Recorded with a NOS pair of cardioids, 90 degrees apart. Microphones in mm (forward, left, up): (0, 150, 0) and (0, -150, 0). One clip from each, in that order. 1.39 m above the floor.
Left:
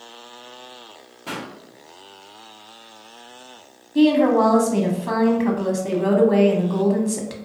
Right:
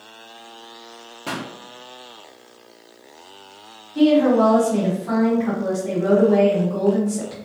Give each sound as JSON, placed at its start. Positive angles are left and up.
{"t": 1.3, "sound": "a pop", "azimuth_deg": -30, "distance_m": 0.8}
{"t": 4.0, "sound": "a woman speaking", "azimuth_deg": 45, "distance_m": 1.0}